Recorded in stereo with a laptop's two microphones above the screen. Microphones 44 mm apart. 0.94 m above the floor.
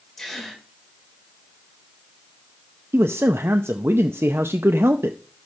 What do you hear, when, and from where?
0.2 s a gasp: 10° left (ahead or behind), 3.5 m
2.9 s a man speaking: 70° right (ahead or behind), 0.6 m